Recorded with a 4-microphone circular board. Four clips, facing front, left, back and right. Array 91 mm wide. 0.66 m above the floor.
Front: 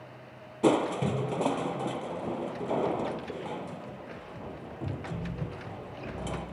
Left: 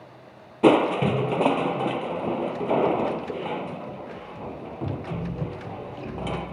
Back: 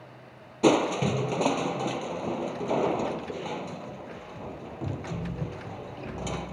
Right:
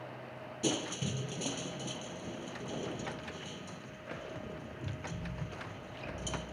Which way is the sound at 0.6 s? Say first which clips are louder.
Left 18 dB, back 3 dB; 100° left.